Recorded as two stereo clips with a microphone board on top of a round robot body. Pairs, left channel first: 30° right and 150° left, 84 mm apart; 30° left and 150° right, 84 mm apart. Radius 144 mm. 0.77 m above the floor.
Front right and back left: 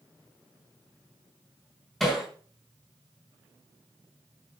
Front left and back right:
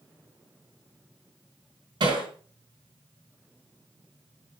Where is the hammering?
115° right, 3.5 m.